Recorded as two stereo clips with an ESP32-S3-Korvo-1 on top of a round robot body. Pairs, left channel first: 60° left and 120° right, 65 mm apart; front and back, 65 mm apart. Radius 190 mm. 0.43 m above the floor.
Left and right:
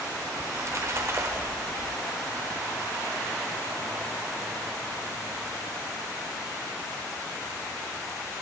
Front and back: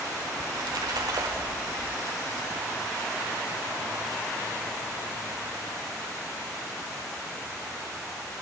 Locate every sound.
0.4 s a splash: 170° right, 1.0 m